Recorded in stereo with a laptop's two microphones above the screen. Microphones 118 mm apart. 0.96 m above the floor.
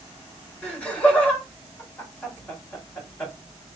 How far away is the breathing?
I don't hear breathing.